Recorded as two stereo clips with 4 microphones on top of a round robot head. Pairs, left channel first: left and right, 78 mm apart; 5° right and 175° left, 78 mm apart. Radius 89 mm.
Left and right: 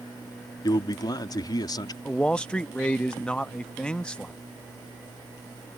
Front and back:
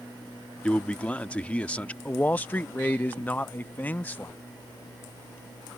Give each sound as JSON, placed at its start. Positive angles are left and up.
{"t": 0.6, "sound": "a man speaking", "azimuth_deg": 70}
{"t": 2.0, "sound": "a man speaking", "azimuth_deg": 30}